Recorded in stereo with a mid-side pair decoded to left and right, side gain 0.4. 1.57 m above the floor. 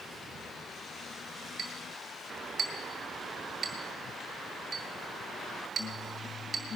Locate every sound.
1.6 s a clink: 55° right, 3 m